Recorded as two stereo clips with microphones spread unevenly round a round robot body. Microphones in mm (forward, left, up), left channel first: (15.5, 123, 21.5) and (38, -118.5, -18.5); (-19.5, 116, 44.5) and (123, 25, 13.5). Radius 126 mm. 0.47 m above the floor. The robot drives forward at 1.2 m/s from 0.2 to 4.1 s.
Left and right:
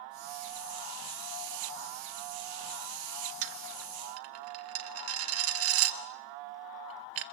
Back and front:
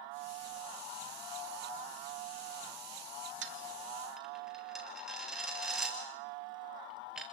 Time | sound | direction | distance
3.4 | a dropped coin | 80° right | 1.1 m